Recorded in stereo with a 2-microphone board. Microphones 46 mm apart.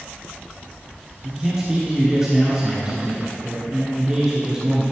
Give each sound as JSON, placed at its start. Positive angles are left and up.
{"t": 1.2, "sound": "a man speaking", "side_deg": -25, "distance_m": 2.5}